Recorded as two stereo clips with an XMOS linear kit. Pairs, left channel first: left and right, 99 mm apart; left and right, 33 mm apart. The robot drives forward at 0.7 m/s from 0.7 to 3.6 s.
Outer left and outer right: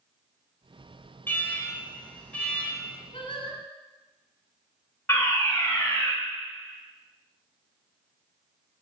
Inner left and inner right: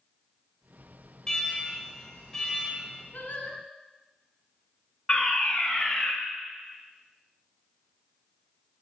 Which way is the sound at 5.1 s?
20° left (ahead or behind).